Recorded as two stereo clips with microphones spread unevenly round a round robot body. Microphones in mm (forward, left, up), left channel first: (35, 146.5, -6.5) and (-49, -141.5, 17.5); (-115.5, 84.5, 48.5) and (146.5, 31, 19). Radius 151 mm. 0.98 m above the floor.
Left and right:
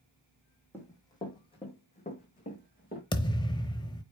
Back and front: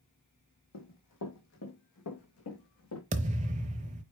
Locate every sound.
0.7 s running footsteps: 155° left, 2.5 m; by 3.0 s 135° left, 3.5 m
3.1 s a thud: 15° left, 0.7 m